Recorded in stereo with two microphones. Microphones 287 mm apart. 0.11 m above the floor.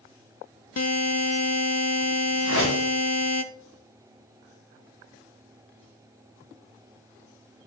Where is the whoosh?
75° left (ahead or behind), 4 m.